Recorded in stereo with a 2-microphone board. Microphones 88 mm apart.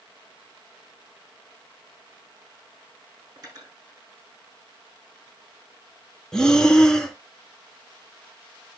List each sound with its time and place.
3.4 s cutlery clinking: 40° right (ahead or behind), 6 m
6.3 s breathing: 10° left (ahead or behind), 1.2 m